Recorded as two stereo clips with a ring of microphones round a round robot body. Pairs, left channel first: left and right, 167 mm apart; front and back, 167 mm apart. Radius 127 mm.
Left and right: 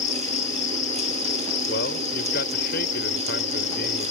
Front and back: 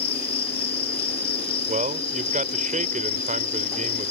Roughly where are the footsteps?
No footsteps in this recording.